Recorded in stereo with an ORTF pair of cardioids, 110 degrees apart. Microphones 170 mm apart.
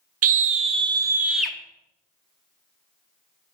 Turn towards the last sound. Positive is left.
turn(degrees=5)